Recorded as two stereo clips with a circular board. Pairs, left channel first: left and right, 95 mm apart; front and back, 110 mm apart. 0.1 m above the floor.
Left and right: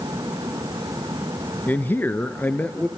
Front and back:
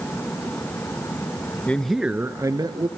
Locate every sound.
1.7 s a man speaking: 55° left, 1.3 m; by 2.9 s 160° left, 1.8 m